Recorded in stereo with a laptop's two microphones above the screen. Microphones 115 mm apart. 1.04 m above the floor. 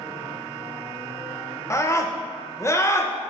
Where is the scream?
25° left (ahead or behind), 0.5 m.